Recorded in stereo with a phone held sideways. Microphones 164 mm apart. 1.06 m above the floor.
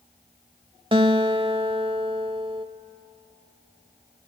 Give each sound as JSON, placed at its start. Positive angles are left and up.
{"t": 0.9, "sound": "a guitar", "side_deg": -30, "distance_m": 0.9}